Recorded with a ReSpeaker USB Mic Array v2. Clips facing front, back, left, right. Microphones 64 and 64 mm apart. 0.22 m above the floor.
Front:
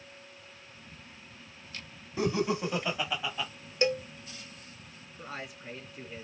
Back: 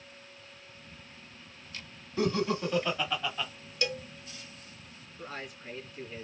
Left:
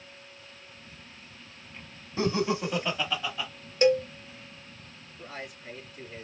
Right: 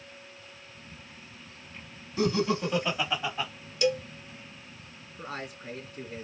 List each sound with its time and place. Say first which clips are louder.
2.2 s laughter: even, right 1 dB; 65° left, 1.2 m; by 3.5 s 80° right, 1.1 m
3.8 s a cowbell: front 6 dB, left 5 dB; 55° left, 0.5 m
5.2 s a man speaking: even, right 3 dB; 75° right, 2.5 m